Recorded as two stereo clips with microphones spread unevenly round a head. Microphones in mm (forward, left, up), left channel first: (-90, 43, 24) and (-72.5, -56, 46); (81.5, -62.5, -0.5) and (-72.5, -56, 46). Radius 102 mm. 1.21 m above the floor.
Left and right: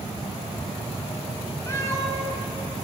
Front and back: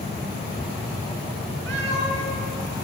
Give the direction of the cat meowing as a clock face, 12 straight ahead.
7 o'clock.